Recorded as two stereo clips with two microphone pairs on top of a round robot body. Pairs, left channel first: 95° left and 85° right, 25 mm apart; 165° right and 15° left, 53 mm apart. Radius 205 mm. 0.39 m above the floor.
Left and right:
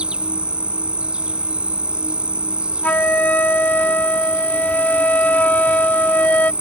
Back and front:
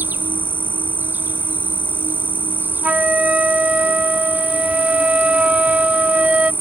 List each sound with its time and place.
0.0 s an insect: 35° right
2.8 s a flute: 85° left